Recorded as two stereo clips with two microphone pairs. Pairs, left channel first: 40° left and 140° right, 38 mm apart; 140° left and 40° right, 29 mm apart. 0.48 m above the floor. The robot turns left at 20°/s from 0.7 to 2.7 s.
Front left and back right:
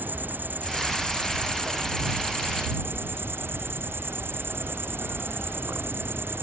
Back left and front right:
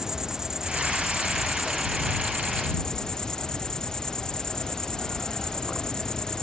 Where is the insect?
110° right; by 6.4 s 150° right.